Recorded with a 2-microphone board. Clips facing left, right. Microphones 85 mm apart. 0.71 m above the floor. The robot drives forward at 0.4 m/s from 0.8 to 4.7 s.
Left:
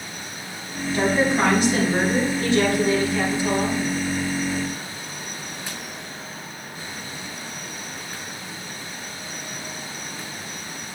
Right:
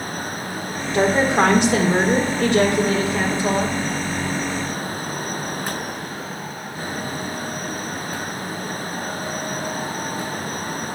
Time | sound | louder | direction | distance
0.9 | a woman speaking | right 3 dB | 70° right (ahead or behind) | 1.7 m